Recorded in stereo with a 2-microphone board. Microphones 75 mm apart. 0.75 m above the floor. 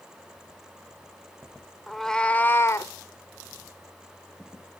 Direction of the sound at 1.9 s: Centre (ahead or behind).